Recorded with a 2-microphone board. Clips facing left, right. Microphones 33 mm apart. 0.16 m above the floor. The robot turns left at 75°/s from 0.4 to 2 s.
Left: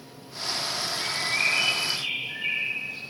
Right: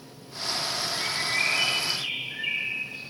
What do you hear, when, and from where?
0.9 s a bird: 170° left, 9.5 m; by 3.0 s 90° left, 9.5 m